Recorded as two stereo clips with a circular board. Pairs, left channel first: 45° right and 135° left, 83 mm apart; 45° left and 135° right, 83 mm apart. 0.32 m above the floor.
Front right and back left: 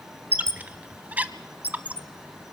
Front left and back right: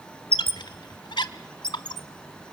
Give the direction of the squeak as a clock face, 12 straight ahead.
10 o'clock.